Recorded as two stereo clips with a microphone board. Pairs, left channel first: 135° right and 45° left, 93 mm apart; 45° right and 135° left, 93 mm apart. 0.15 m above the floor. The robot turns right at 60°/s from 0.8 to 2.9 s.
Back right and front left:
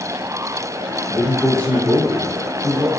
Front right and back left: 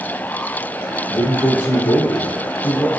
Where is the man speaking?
90° right, 2.5 m; by 2.9 s 20° left, 2.5 m.